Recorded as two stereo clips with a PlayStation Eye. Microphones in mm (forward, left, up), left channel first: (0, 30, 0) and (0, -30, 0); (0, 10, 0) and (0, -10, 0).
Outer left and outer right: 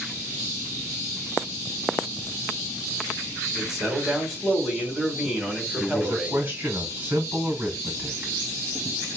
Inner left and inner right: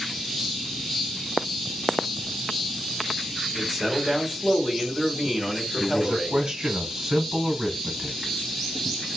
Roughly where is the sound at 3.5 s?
Centre.